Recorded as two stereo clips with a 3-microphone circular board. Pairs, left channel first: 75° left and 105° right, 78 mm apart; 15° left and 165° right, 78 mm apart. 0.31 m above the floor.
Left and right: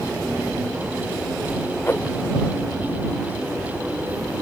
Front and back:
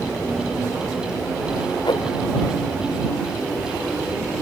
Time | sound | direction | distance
1.8 | a whoosh | 15° left | ?